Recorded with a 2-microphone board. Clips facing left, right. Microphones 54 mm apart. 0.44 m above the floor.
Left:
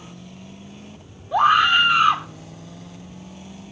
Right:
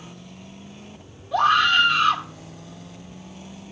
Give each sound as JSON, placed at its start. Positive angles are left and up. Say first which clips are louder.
{"t": 1.3, "sound": "a scream", "louder": "left 2 dB", "side_deg": 15, "distance_m": 0.9}